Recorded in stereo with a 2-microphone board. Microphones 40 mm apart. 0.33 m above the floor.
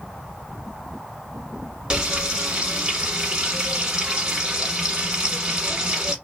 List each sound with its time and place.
1.9 s frying: 25° right (ahead or behind), 1.1 m